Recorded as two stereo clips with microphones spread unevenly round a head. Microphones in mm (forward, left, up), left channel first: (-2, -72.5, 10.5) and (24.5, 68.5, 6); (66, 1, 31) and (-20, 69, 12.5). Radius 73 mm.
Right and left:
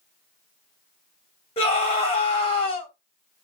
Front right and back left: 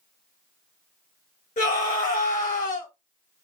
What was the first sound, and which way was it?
A scream, 50° right.